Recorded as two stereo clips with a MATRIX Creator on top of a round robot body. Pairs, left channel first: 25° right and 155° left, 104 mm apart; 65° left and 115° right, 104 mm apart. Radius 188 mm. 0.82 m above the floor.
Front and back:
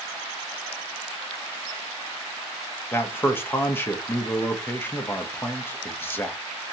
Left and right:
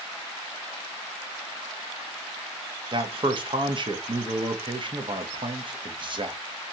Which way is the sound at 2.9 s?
90° right.